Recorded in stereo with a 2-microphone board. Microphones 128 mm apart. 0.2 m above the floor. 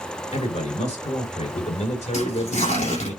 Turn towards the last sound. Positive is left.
turn(degrees=70)  # may be behind; listen again after turning